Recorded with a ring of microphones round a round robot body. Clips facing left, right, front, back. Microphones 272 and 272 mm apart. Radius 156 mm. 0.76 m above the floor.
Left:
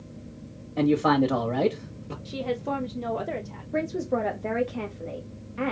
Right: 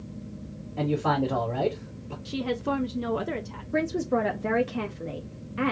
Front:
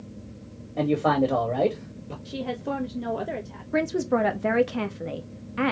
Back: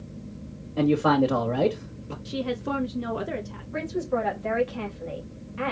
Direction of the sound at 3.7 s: 20° right.